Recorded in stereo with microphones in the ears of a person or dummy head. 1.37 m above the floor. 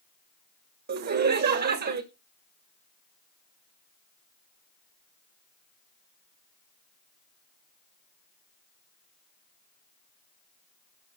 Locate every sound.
0.9 s laughter: 50° right (ahead or behind), 1.3 m